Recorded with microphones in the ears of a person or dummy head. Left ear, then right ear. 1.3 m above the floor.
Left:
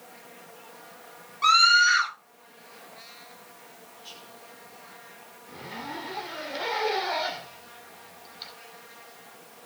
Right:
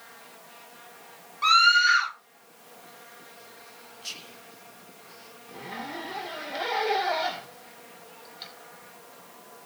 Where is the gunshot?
I don't hear a gunshot.